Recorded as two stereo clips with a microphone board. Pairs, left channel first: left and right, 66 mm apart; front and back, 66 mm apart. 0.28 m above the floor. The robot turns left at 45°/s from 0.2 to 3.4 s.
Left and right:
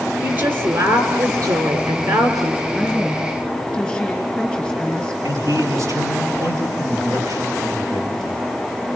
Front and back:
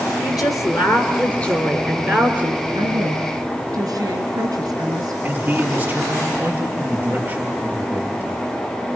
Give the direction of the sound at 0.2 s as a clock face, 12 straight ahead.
1 o'clock.